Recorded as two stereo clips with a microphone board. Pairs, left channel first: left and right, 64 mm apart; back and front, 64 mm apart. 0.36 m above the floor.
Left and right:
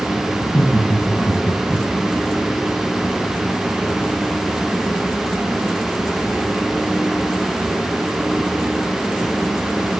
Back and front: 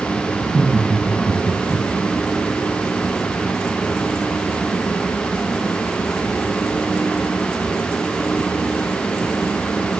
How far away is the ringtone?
I don't hear a ringtone.